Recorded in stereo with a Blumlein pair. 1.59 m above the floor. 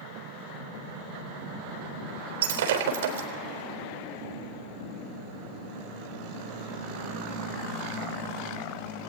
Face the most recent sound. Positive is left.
turn(degrees=-55)